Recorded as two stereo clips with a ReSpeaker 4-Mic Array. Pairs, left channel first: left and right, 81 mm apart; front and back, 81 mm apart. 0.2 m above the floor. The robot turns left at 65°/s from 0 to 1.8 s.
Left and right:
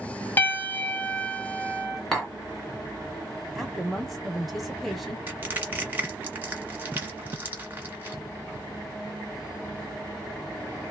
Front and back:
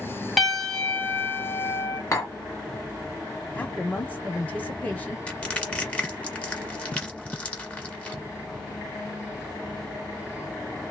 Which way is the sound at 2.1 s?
15° left.